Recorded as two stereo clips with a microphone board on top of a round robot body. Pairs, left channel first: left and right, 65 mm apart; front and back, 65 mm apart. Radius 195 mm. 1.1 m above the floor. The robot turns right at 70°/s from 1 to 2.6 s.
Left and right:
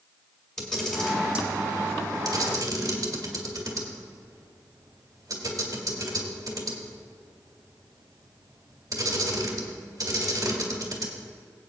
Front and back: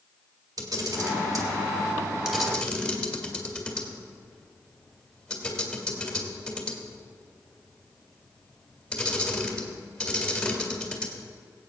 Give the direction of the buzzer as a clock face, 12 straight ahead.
No buzzer in this recording.